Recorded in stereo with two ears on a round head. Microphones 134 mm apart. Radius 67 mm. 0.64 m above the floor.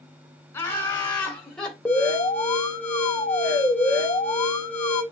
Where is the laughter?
15° left (ahead or behind), 3.5 m; by 1.8 s 5° left (ahead or behind), 3 m.